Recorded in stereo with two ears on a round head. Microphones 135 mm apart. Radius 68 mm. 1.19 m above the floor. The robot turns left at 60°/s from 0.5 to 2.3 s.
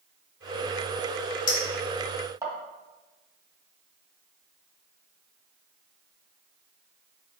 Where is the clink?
30° left (ahead or behind), 1.5 m; by 2.5 s 20° right (ahead or behind), 1.5 m.